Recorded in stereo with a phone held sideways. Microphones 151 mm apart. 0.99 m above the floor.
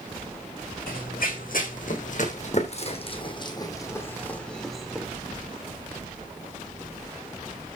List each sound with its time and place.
0.9 s running footsteps: 75° left (ahead or behind), 4 m; by 5.1 s 5° right (ahead or behind), 3.5 m